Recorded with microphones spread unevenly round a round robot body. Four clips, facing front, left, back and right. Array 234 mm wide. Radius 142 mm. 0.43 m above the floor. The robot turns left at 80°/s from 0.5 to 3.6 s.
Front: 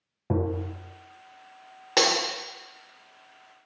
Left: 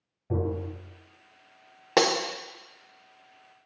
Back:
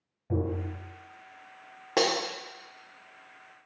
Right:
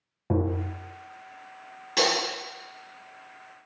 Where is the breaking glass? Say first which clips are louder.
Left 3 dB, front 1 dB; 70° left, 0.5 m; by 2.2 s 55° left, 0.5 m.